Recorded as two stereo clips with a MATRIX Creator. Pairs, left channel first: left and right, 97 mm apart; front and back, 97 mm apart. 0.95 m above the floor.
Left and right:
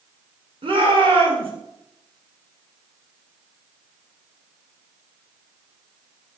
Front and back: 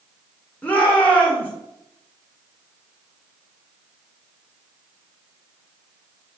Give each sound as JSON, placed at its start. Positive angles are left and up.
{"t": 0.6, "sound": "a shout", "azimuth_deg": -75, "distance_m": 3.0}